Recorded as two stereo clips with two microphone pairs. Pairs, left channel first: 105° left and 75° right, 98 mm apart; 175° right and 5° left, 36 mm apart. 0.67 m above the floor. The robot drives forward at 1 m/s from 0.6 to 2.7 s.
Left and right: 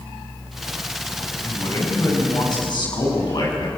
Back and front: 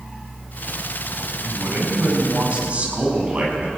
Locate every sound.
1.4 s a man speaking: 50° left, 7 m; by 3.7 s 60° left, 6.5 m